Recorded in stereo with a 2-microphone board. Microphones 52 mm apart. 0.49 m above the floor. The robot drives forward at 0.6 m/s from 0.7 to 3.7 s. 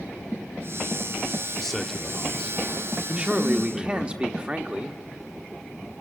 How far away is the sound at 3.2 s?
About 0.8 m.